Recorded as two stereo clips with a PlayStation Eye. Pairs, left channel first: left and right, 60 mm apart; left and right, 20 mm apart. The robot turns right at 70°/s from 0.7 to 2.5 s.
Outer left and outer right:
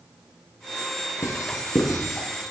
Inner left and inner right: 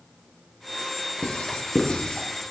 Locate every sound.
1.2 s writing: 55° left (ahead or behind), 3.5 m; by 2.3 s 50° left (ahead or behind), 3.5 m